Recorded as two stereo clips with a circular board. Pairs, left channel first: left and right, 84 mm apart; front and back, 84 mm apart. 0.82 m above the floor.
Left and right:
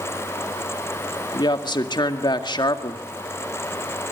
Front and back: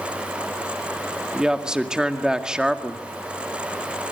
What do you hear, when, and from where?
1.3 s a woman speaking: 100° left, 1.9 m